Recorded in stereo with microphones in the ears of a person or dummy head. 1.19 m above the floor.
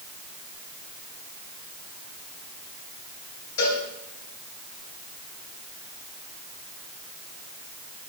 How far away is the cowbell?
About 3 m.